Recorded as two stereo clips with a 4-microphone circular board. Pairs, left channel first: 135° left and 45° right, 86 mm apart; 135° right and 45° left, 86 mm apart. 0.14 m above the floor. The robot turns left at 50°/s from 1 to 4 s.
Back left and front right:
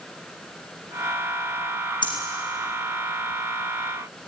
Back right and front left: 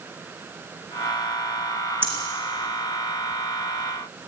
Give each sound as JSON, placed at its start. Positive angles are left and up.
{"t": 2.0, "sound": "breathing", "azimuth_deg": 110, "distance_m": 4.5}